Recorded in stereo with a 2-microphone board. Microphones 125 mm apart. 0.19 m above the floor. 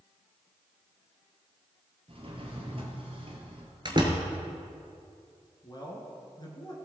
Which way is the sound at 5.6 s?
35° left (ahead or behind).